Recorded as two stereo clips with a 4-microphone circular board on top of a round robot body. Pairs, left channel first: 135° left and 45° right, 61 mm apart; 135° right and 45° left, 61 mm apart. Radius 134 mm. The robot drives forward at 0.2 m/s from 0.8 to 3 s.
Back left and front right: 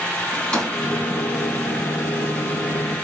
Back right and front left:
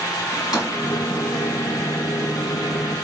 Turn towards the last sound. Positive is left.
turn(degrees=-155)